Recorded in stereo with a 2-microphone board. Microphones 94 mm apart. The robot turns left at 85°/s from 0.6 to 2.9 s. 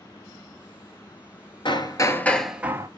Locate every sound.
1.6 s hammering: 70° left, 1.2 m; by 2.9 s 35° right, 1.2 m